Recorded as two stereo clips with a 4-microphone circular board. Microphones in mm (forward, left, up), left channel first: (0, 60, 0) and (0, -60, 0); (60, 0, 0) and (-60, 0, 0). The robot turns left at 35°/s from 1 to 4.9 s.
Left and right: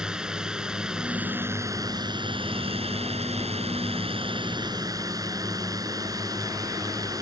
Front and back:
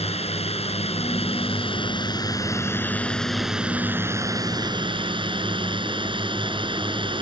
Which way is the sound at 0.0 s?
5° right.